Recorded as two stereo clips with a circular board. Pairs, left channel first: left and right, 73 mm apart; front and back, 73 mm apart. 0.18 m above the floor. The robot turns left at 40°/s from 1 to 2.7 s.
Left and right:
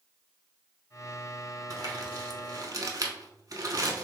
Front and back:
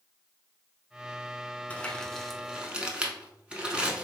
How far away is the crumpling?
About 0.6 m.